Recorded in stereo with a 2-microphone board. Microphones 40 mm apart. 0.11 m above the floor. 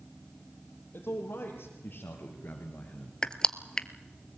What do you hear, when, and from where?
0.9 s a man speaking: 55° left (ahead or behind), 3.5 m; by 3.1 s 25° left (ahead or behind), 1.9 m
3.2 s crushing: 20° left (ahead or behind), 0.7 m